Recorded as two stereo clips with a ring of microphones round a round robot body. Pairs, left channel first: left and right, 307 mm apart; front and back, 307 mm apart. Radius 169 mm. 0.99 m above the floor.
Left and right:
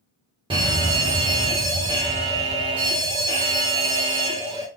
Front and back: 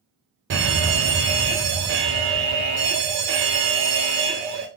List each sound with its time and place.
0.5 s a fire alarm: 155° right, 1.9 m